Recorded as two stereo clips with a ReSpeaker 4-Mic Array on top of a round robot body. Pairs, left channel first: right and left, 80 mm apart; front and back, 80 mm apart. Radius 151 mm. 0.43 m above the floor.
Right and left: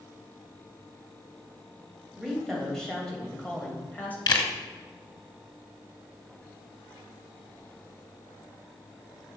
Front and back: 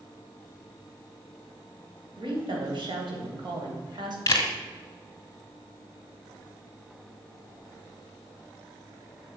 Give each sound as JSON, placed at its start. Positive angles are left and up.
{"t": 2.2, "sound": "a woman speaking", "azimuth_deg": 180, "distance_m": 3.0}
{"t": 4.3, "sound": "a camera shutter", "azimuth_deg": -50, "distance_m": 1.3}